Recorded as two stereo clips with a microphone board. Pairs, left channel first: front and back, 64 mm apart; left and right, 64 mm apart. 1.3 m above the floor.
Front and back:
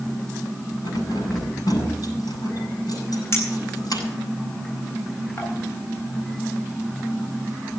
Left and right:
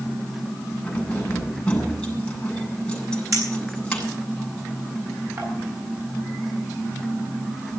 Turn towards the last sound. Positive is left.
turn(degrees=-55)